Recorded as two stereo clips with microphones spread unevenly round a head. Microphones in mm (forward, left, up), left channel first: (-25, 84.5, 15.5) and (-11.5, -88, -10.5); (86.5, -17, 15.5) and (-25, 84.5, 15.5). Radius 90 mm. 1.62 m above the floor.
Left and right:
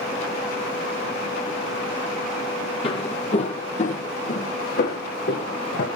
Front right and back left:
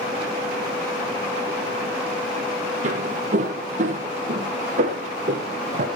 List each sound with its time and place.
2.8 s footsteps: 130° left, 2.5 m; by 5.9 s 105° left, 3.5 m